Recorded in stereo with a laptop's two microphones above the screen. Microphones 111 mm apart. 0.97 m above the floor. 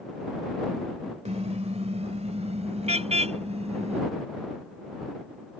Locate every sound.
1.2 s a car horn: 80° right; by 4.0 s 75° right (ahead or behind)